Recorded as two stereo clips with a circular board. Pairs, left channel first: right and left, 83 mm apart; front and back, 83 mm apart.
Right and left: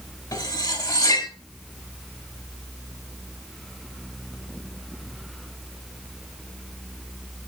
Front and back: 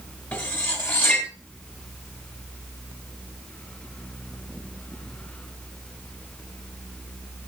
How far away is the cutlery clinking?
About 1.5 m.